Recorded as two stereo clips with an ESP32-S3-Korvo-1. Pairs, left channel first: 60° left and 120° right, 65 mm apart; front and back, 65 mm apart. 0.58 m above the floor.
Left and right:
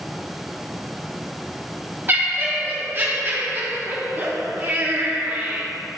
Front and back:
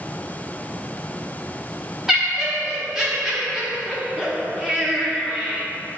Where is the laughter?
100° right, 0.7 m.